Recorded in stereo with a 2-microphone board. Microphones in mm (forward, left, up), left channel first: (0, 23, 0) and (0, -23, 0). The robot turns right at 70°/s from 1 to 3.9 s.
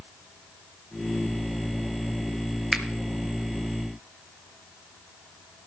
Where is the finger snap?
15° right (ahead or behind), 1.2 m; by 2.9 s 5° right (ahead or behind), 1.2 m.